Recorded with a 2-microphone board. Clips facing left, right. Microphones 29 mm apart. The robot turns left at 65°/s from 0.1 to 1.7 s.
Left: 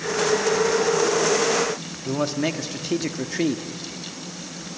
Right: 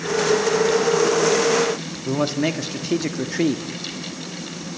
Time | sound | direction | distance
2.0 | a man speaking | 5° right (ahead or behind) | 0.9 m